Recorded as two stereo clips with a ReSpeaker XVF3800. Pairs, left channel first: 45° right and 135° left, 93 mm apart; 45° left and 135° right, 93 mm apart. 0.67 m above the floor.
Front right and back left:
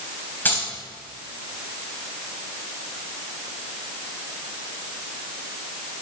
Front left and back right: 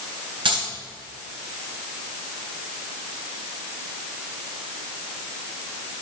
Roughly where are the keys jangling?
Behind right.